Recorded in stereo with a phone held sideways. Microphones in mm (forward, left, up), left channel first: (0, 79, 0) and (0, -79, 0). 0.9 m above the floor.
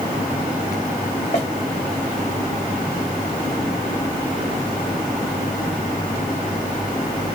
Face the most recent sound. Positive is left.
turn(degrees=50)  # may be behind; listen again after turning